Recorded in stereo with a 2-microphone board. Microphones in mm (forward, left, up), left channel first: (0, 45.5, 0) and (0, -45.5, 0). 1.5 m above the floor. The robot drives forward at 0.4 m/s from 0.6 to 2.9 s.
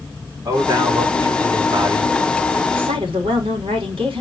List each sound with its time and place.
0.5 s a man speaking: 50° right (ahead or behind), 3.5 m; by 2.1 s 55° right (ahead or behind), 3.5 m
2.7 s a woman speaking: 80° right, 4 m